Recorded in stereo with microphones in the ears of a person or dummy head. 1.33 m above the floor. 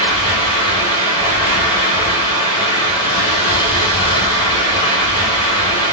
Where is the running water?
25° left (ahead or behind), 1.8 m.